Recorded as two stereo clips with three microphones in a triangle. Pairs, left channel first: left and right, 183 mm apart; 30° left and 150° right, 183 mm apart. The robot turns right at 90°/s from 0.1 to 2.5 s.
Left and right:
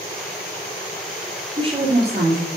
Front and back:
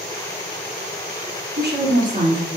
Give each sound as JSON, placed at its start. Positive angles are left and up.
{"t": 1.6, "sound": "a woman speaking", "azimuth_deg": -155, "distance_m": 4.0}